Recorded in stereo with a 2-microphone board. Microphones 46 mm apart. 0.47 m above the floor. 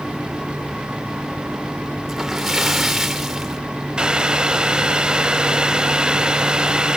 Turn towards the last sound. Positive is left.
turn(degrees=-20)  # may be behind; listen again after turning